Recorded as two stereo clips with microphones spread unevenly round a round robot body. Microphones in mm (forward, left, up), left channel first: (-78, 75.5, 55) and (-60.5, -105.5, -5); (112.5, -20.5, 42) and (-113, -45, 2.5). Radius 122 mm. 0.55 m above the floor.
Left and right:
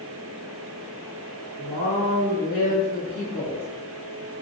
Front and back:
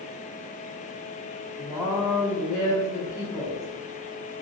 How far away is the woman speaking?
About 1.9 m.